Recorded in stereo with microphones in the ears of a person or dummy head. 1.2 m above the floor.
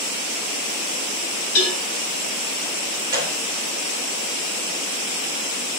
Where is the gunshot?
25° right (ahead or behind), 2.5 m.